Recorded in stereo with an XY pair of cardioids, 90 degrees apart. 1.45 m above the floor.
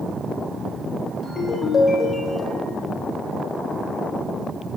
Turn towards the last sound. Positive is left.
turn(degrees=30)